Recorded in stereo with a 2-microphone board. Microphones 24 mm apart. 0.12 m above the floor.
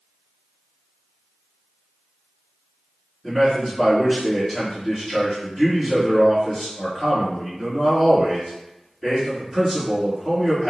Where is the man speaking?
15° right (ahead or behind), 1.6 m.